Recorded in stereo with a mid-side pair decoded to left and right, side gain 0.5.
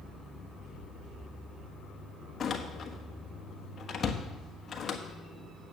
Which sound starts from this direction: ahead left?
A door slam, at 2.4 s.